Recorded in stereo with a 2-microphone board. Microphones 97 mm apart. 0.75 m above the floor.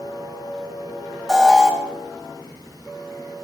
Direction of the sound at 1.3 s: 5° right (ahead or behind).